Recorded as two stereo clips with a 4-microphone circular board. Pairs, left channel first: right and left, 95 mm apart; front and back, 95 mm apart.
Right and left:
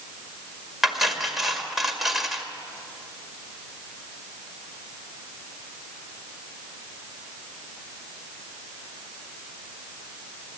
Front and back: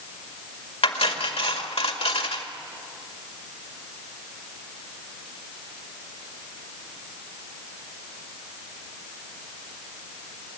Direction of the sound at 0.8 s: 5° left.